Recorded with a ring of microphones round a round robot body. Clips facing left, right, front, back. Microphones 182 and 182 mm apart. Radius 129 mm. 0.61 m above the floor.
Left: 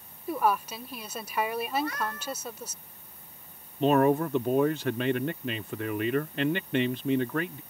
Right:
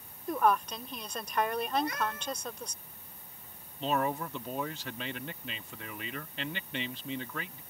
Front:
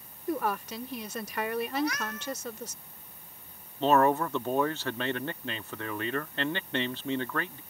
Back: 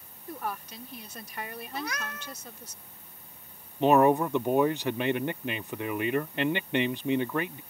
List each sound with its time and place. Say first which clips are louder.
0.3 s a woman speaking: left 1 dB, front 6 dB; 5° left
1.7 s a cat meowing: left 1 dB, front 6 dB; 165° right
3.8 s a man speaking: left 10 dB, back 3 dB; 110° left